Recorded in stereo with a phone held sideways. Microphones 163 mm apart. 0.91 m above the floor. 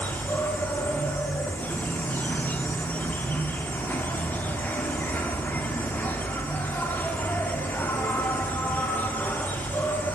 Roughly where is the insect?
Centre.